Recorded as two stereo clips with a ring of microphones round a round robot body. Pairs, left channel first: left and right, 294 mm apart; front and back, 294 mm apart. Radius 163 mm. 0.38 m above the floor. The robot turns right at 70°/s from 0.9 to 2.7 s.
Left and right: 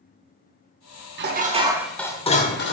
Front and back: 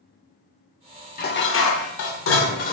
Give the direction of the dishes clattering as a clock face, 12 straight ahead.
2 o'clock.